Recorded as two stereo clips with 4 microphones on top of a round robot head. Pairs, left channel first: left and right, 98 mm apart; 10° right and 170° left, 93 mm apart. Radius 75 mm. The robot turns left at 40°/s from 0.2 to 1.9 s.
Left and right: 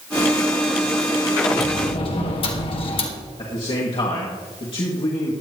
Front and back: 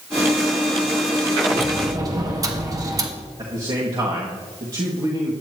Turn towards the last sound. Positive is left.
turn(degrees=125)